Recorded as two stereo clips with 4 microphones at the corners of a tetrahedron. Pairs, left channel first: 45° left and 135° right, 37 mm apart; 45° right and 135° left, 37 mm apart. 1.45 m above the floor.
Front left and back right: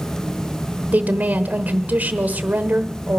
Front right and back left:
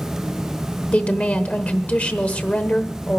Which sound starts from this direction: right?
A woman speaking, at 0.9 s.